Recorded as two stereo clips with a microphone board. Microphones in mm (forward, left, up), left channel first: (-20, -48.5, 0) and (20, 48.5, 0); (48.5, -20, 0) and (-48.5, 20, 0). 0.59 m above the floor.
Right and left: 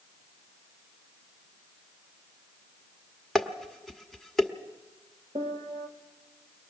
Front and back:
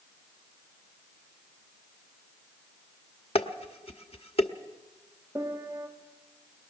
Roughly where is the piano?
Left.